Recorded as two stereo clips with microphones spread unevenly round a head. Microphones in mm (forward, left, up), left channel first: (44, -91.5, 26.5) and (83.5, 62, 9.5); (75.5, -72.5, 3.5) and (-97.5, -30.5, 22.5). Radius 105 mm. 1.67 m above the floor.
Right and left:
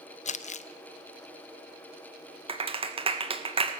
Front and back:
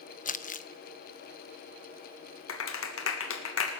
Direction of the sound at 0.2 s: 60° right.